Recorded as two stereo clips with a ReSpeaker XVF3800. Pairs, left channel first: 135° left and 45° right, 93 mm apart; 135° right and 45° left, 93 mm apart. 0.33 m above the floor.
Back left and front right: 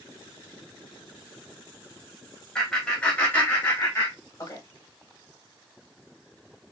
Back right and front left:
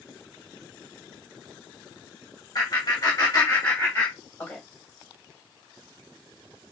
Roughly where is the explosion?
No explosion in this recording.